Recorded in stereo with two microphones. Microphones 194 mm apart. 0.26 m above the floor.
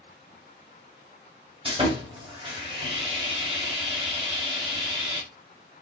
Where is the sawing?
25° right (ahead or behind), 1.2 m.